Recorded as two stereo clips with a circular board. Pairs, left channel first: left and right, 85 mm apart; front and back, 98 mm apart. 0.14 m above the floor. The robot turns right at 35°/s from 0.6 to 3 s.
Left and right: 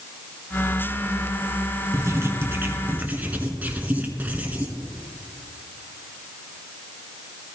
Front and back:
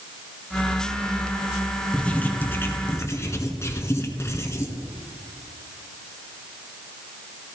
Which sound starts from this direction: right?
Writing, at 1.9 s.